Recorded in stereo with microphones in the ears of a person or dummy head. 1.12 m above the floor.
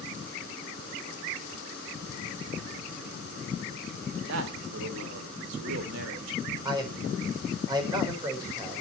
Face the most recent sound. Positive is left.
turn(degrees=-25)  # may be behind; listen again after turning